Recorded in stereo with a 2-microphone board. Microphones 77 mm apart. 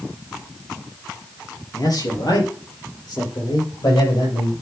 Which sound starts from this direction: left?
A man speaking, at 1.7 s.